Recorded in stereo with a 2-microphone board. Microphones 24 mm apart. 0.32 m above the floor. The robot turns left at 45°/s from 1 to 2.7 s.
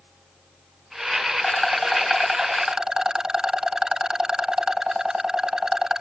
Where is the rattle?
25° left; by 6.0 s 35° right.